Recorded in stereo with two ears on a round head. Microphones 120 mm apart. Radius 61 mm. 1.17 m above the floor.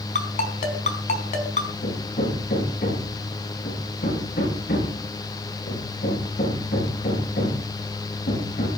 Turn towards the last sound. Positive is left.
turn(degrees=80)